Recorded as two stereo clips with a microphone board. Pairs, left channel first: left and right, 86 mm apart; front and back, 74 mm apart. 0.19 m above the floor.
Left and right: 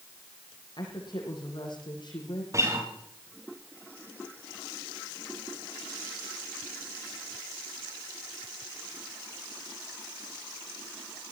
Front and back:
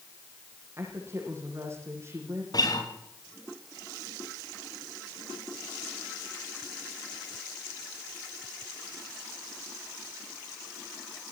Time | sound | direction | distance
0.8 | a woman speaking | 125° left | 10 m
2.5 | a guitar | 35° right | 7 m